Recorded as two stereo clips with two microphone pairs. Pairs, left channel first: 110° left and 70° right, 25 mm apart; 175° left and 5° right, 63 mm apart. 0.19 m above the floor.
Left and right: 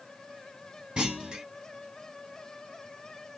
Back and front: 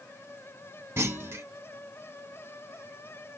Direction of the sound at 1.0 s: 35° right.